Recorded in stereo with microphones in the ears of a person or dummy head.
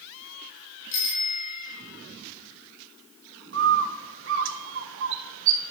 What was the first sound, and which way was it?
A bicycle bell, 60° left (ahead or behind).